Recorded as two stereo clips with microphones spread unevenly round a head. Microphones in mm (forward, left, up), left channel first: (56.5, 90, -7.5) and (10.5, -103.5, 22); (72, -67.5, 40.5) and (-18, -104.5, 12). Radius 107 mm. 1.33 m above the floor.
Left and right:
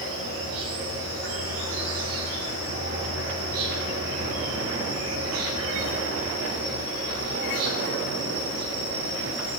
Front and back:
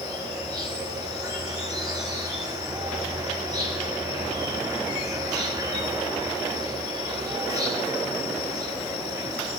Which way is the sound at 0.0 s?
105° right.